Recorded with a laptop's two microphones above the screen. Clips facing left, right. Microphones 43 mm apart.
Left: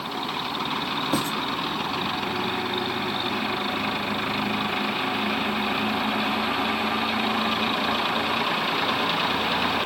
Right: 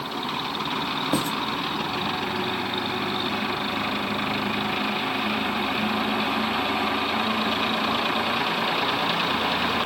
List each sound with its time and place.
1.1 s writing: 20° right (ahead or behind), 0.8 m